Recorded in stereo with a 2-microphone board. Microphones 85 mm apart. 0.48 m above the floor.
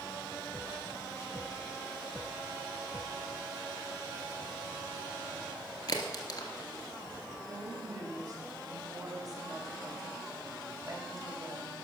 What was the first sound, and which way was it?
A crack, 45° left (ahead or behind).